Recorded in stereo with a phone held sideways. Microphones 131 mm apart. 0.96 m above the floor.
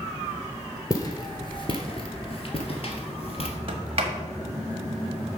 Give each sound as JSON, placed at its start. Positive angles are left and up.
{"t": 0.9, "sound": "footsteps", "side_deg": 30, "distance_m": 1.2}
{"t": 3.7, "sound": "a sliding door", "side_deg": -45, "distance_m": 1.3}